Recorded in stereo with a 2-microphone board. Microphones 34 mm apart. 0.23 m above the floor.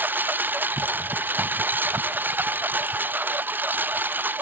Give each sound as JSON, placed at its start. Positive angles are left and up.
{"t": 0.0, "sound": "a lawn mower", "side_deg": -65}